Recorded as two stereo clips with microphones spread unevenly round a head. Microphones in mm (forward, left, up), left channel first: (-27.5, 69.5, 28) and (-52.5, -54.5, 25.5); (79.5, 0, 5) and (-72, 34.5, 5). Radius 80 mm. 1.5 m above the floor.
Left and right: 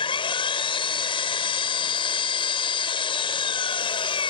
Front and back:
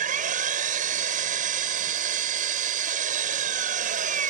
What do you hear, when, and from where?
0.0 s an engine running: 130° left